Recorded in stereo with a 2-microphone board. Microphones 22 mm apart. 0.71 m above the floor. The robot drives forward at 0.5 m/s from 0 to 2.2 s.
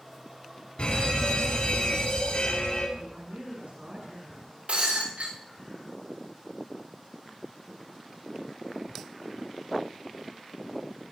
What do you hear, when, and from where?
0.8 s a fire alarm: 55° left (ahead or behind), 9.5 m; by 2.9 s 60° left (ahead or behind), 9.5 m
3.0 s a woman speaking: 65° right (ahead or behind), 9.5 m
4.7 s breaking glass: 85° right, 9 m